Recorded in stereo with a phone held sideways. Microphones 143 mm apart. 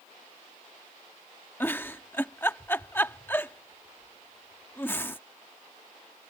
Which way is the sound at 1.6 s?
15° left (ahead or behind).